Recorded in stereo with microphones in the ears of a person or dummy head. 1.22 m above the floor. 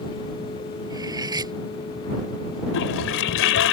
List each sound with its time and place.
0.9 s cutlery clinking: 25° right (ahead or behind)
2.7 s a toilet flushing: 65° left (ahead or behind)